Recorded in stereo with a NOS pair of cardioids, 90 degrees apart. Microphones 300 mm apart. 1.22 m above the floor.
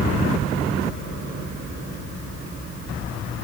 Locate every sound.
Only background noise.